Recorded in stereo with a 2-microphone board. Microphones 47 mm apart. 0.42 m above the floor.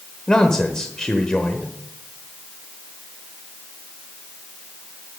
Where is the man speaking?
15° left (ahead or behind), 1.1 m.